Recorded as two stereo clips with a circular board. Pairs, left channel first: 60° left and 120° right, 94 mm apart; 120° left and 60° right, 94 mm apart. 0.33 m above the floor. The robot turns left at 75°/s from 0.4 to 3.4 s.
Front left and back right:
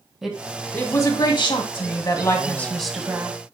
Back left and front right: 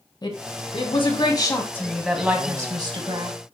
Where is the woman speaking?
155° left, 1.9 m; by 3.4 s 70° right, 1.9 m.